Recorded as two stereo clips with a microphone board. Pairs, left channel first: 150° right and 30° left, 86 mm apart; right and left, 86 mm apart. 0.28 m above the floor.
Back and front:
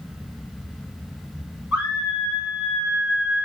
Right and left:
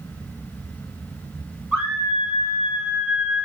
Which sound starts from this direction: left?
A scream, at 1.7 s.